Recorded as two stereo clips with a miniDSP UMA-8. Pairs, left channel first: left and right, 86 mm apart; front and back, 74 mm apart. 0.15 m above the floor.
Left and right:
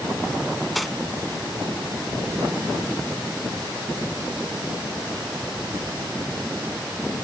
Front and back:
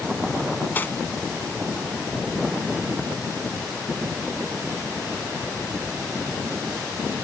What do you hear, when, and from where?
0.8 s cutlery clinking: straight ahead, 0.7 m